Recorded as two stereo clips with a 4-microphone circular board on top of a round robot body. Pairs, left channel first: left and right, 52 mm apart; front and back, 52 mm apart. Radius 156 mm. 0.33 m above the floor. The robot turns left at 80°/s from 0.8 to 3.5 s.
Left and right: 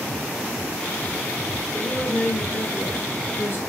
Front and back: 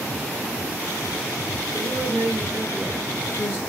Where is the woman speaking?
160° right, 1.8 m; by 3.6 s 55° left, 1.8 m.